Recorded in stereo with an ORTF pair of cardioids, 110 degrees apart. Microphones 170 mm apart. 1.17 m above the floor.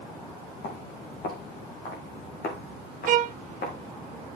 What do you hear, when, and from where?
0.6 s footsteps: 60° left, 3.5 m
3.1 s a violin: 55° right, 0.6 m